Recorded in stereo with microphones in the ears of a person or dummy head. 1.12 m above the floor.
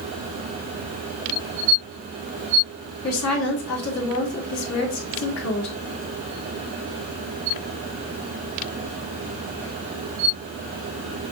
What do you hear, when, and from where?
3.0 s a woman speaking: 80° left, 3 m